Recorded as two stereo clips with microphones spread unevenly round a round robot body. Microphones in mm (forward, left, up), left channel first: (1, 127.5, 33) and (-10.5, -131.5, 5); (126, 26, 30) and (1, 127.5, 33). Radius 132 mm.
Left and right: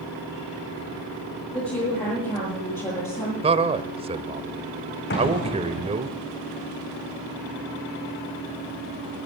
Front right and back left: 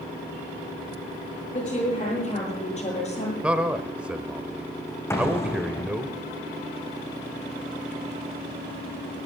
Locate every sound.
1.5 s a woman speaking: 15° left, 8.5 m; by 3.3 s 10° left, 10.5 m
3.4 s a man speaking: 140° right, 1.0 m
5.1 s an explosion: 35° left, 4.5 m